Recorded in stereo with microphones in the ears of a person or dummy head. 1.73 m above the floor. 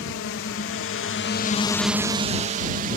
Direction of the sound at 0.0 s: 60° left (ahead or behind).